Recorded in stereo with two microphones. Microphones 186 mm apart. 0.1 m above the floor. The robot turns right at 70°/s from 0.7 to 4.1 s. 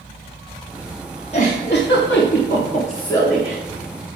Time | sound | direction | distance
1.3 | a giggle | 35° left | 7 m